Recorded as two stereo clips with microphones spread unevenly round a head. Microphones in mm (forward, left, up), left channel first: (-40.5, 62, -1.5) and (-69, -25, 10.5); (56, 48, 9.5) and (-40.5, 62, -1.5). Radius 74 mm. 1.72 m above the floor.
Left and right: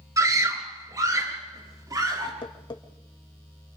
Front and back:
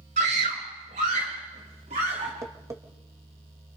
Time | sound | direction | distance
0.2 | a scream | 165° right | 3 m
2.4 | tapping | 110° left | 2 m